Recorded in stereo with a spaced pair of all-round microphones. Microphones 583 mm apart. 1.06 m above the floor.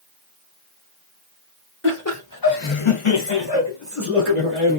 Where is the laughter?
20° left (ahead or behind), 1.6 m; by 4.8 s 15° left (ahead or behind), 2.5 m.